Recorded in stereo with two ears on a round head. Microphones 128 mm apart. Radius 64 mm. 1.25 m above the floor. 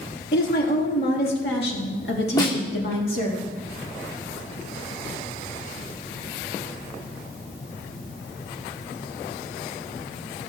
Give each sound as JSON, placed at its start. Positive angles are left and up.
{"t": 0.3, "sound": "a woman speaking", "side_deg": 60, "distance_m": 3.0}
{"t": 2.4, "sound": "a snare drum", "side_deg": 25, "distance_m": 1.8}